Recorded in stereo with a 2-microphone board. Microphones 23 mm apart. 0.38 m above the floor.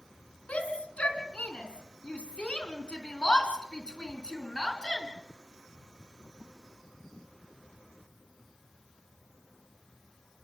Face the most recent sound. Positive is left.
turn(degrees=35)  # may be behind; listen again after turning